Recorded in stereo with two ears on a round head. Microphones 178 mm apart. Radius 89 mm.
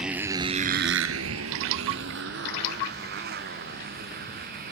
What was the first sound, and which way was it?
A motorcycle, 5° right (ahead or behind).